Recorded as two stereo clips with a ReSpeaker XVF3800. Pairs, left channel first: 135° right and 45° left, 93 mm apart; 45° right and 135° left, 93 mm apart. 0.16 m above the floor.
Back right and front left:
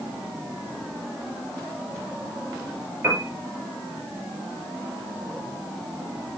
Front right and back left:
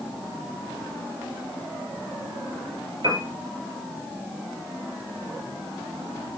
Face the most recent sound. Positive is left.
turn(degrees=105)